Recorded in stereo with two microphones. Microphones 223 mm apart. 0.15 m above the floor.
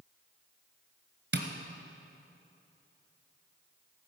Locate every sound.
1.3 s tapping: 50° right (ahead or behind), 1.3 m